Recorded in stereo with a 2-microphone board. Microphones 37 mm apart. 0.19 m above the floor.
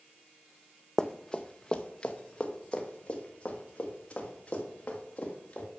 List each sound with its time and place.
1.0 s running footsteps: 10° left (ahead or behind), 0.6 m; by 5.7 s 30° left (ahead or behind), 4 m